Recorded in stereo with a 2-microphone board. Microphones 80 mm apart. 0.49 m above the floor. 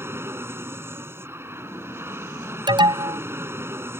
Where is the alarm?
70° right (ahead or behind).